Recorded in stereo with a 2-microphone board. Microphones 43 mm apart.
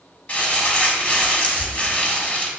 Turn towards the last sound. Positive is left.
turn(degrees=30)  # may be behind; listen again after turning